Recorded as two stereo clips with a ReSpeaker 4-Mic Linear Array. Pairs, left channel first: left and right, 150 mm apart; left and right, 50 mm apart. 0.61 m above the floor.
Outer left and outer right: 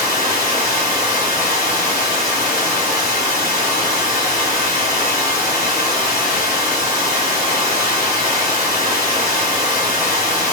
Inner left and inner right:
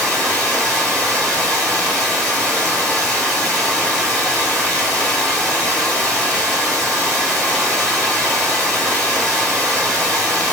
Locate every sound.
0.0 s running water: 20° left (ahead or behind), 1.4 m